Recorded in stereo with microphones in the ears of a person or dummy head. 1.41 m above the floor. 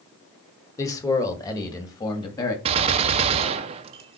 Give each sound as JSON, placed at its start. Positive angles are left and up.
{"t": 0.8, "sound": "a man speaking", "side_deg": 20, "distance_m": 1.3}
{"t": 2.6, "sound": "a gunshot", "side_deg": -30, "distance_m": 0.6}